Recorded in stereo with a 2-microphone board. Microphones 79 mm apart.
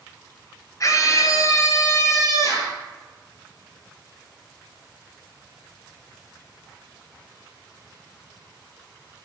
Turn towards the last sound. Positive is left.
turn(degrees=40)  # may be behind; listen again after turning